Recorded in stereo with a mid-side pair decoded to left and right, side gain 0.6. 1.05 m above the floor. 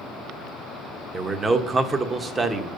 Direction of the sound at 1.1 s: 25° right.